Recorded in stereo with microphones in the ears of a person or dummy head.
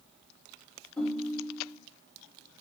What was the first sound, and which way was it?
A ringtone, 10° left (ahead or behind).